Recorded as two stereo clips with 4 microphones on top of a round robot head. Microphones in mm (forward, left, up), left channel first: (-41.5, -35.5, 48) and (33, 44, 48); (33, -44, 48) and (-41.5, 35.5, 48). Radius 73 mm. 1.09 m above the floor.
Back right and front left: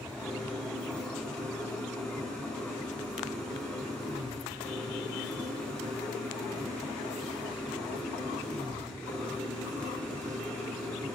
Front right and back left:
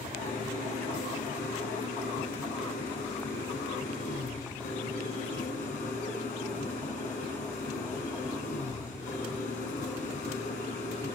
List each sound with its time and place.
0.0 s an engine running: 50° right, 6.5 m